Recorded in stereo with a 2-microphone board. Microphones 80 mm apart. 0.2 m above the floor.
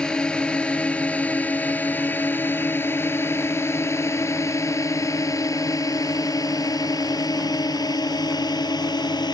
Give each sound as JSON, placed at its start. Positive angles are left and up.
{"t": 0.0, "sound": "a drone", "side_deg": 10}